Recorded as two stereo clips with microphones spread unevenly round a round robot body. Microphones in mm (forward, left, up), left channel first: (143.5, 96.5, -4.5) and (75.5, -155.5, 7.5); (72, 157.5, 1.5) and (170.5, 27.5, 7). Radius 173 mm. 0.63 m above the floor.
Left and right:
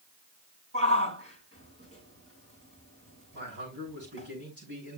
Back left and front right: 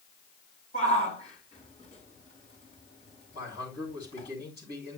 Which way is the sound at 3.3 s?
165° right.